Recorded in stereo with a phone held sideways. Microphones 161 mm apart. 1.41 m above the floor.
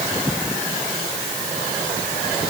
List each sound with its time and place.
Only background noise.